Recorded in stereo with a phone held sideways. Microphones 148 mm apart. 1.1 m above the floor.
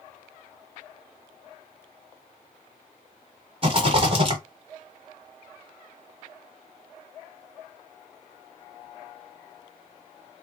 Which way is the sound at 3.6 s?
40° right (ahead or behind).